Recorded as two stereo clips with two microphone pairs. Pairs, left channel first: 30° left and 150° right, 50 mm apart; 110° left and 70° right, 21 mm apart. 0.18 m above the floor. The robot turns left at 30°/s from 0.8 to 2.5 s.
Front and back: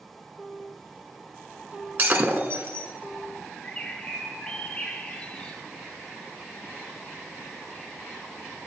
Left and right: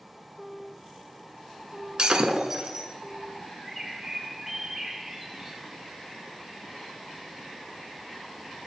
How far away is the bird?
About 0.9 m.